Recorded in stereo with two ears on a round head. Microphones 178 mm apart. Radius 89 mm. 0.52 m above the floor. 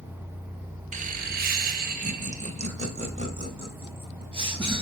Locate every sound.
0.9 s laughter: 40° right (ahead or behind), 0.9 m; by 4.8 s 25° right (ahead or behind), 3.5 m